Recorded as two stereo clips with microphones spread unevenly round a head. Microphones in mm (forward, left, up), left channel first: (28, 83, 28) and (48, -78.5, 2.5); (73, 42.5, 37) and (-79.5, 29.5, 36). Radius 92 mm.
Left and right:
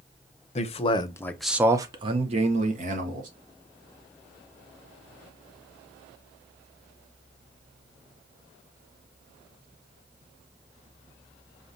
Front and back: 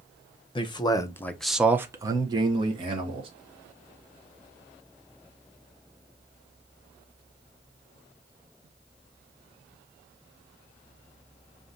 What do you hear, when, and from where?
0.6 s a man speaking: 50° left, 0.8 m; by 3.3 s 120° right, 1.5 m